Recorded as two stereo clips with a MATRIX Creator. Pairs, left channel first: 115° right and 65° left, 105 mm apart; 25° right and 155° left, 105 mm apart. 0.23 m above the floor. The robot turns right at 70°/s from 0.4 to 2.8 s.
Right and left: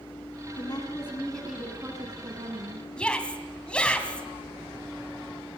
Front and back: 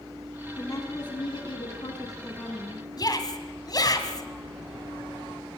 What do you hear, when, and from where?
0.6 s a woman speaking: 85° right, 2.5 m; by 2.9 s 75° left, 2.5 m
3.0 s a shout: 40° right, 1.9 m